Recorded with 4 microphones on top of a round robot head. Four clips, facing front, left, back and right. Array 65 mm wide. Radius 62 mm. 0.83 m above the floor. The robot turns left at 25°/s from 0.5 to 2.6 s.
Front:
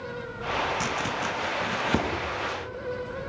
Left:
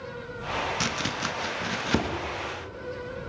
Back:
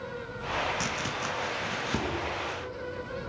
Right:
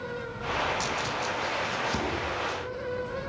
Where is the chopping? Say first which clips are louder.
Even, front 4 dB; 80° left, 1.1 m; by 2.1 s 50° left, 1.1 m.